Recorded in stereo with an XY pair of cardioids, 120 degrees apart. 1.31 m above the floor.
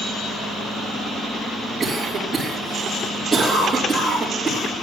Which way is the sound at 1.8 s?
20° right.